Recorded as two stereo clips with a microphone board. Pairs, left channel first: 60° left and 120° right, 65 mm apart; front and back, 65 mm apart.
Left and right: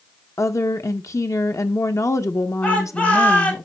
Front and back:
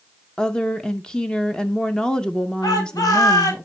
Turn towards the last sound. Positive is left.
turn(degrees=-10)